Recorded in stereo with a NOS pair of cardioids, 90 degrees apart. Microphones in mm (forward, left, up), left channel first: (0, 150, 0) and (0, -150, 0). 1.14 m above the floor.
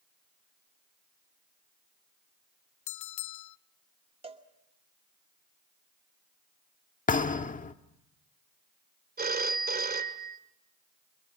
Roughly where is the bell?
Left.